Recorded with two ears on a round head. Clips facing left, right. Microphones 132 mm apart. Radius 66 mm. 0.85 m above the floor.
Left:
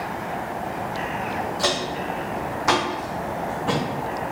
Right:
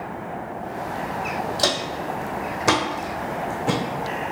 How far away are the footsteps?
About 1.3 m.